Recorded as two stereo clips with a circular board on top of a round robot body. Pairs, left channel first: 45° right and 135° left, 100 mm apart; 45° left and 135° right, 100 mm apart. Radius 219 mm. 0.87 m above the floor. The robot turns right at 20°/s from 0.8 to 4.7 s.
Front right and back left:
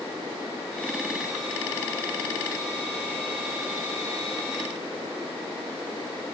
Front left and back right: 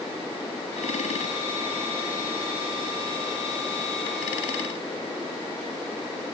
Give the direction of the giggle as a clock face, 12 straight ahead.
I don't hear a giggle.